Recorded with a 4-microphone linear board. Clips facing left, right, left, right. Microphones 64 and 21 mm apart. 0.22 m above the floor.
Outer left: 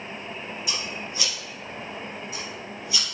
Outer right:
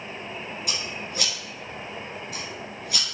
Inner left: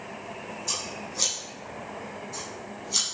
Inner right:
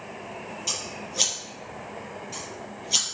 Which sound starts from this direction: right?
Scissors, at 0.7 s.